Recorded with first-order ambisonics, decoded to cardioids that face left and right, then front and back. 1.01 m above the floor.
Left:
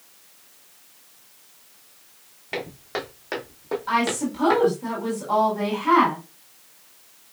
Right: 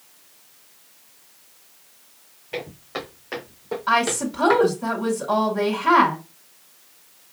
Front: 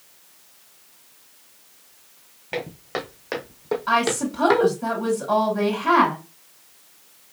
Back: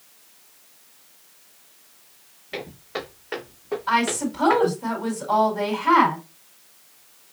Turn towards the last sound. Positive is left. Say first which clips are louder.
# right 3 dB, front 1 dB
turn(degrees=-55)